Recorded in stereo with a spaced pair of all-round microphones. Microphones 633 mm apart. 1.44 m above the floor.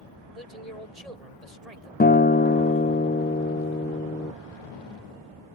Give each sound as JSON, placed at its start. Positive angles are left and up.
{"t": 0.3, "sound": "a man speaking", "side_deg": -75}
{"t": 2.0, "sound": "a guitar", "side_deg": 15}